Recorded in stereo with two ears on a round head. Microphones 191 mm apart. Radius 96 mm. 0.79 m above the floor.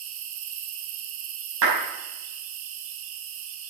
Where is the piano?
I don't hear a piano.